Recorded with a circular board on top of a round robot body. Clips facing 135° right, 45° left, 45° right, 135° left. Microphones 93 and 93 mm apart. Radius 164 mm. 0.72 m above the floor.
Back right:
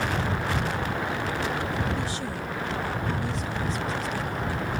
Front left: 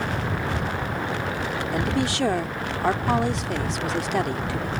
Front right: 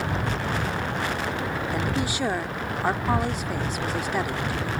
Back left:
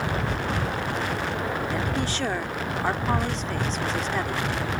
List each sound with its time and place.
1.7 s a woman speaking: 35° left